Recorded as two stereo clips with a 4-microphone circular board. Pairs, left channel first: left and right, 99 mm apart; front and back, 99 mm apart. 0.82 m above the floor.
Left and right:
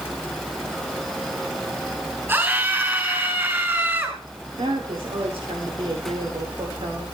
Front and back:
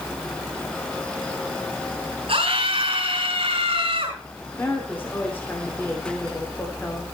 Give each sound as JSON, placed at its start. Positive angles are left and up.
{"t": 2.3, "sound": "a scream", "azimuth_deg": -160, "distance_m": 5.0}
{"t": 4.6, "sound": "a woman speaking", "azimuth_deg": -70, "distance_m": 2.5}